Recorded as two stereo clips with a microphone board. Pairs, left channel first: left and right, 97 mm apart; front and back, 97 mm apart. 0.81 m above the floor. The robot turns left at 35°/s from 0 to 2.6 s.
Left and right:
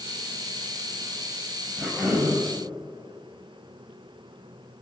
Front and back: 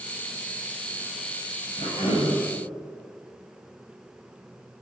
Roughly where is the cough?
Ahead.